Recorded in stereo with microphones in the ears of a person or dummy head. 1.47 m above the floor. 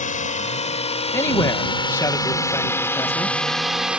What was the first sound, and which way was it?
A drone, 35° left (ahead or behind).